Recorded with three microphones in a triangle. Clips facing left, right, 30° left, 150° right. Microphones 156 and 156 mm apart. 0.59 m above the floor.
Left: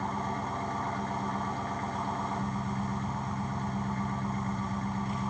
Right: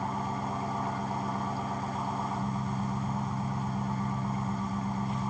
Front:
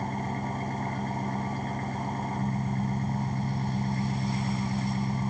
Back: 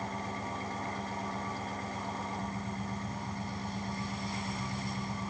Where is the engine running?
10° right, 1.7 m.